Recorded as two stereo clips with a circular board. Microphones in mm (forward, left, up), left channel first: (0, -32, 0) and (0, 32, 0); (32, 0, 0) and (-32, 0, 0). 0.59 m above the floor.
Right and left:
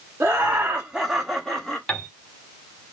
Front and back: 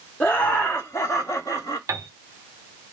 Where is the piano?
165° right, 0.9 m.